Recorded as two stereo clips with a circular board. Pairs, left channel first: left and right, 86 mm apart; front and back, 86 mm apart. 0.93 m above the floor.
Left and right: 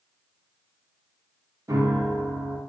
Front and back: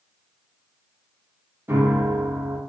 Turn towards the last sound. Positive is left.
turn(degrees=-125)